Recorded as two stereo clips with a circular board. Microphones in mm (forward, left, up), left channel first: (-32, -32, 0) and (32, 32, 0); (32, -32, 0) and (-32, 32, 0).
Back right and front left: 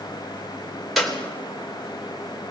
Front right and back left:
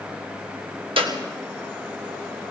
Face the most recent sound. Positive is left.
turn(degrees=135)